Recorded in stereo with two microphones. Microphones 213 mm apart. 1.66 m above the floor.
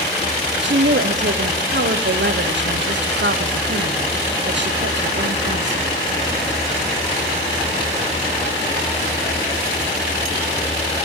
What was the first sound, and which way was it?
A woman speaking, 60° right (ahead or behind).